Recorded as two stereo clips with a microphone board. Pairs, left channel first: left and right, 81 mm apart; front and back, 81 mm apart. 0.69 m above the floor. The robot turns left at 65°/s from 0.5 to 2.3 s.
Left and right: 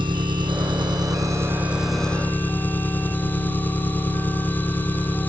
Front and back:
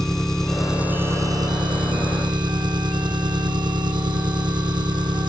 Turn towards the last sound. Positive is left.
turn(degrees=160)